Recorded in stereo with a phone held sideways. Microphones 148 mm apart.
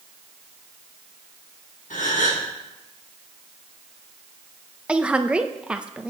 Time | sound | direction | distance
1.9 | a gasp | 70° left (ahead or behind) | 2.5 m
4.9 | a woman speaking | 5° right (ahead or behind) | 0.7 m